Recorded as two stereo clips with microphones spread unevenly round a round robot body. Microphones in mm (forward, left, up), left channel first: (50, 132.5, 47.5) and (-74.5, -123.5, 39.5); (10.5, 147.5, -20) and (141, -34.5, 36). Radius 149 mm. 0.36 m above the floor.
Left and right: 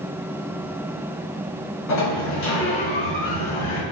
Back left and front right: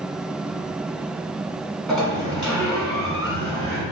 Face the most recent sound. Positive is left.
turn(degrees=40)